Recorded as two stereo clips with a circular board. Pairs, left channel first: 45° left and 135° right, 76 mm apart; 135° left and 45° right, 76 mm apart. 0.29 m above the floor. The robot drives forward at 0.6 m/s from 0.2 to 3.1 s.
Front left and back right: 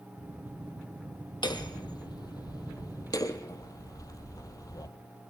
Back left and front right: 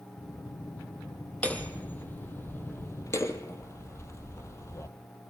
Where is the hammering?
65° left, 3 m; by 4.9 s 85° left, 2.5 m.